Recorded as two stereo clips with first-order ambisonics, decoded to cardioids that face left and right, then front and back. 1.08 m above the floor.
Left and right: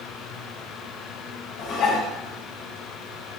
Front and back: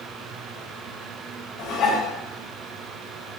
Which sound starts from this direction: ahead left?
Dishes clattering, at 1.6 s.